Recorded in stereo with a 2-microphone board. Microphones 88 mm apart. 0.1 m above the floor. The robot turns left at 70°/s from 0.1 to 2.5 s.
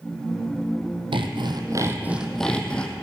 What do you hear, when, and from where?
1.1 s sawing: 95° right, 1.2 m; by 2.9 s 170° left, 1.2 m